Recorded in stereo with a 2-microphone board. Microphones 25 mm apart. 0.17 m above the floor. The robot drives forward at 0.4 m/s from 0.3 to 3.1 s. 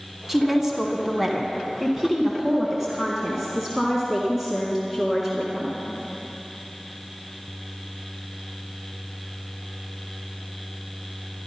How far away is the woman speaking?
About 1.3 m.